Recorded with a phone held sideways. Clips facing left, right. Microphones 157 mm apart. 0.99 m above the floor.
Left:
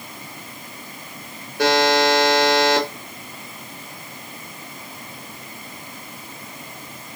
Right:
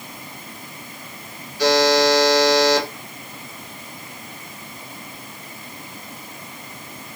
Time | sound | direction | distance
1.6 | a buzzer | 60° left (ahead or behind) | 1.7 m